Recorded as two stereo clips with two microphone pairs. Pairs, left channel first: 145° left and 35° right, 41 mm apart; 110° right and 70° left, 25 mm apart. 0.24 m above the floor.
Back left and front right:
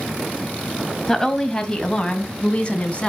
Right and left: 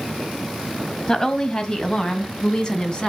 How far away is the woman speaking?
About 1.5 m.